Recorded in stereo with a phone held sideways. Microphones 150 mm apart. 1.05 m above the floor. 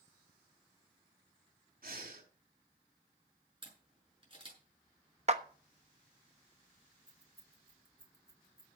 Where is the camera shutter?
35° right (ahead or behind), 6.5 m.